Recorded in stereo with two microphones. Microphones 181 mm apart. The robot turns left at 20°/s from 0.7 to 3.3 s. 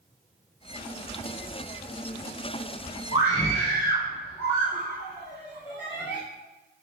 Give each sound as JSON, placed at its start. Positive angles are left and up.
{"t": 3.1, "sound": "a scream", "side_deg": 40, "distance_m": 4.0}